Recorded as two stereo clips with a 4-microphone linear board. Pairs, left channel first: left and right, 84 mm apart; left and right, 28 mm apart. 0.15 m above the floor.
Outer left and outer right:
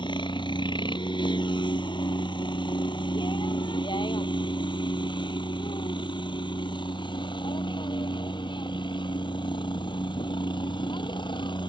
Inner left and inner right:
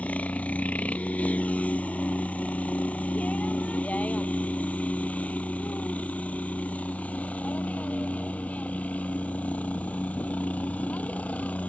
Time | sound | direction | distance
0.0 | a helicopter | 60° left (ahead or behind) | ?